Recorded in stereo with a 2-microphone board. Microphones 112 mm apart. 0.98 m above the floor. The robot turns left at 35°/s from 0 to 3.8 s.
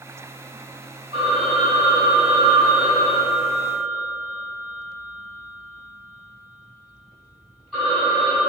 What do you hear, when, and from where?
1.1 s a phone ringing: 90° right, 1.7 m; by 8.4 s 175° left, 1.7 m